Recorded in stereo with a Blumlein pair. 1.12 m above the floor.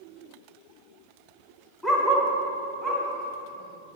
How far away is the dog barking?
About 1.8 m.